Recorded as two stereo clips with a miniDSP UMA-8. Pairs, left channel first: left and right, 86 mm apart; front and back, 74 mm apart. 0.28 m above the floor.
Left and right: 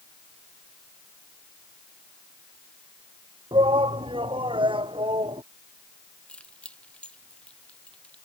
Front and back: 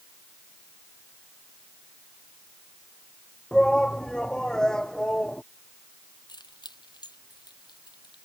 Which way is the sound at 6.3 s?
15° left.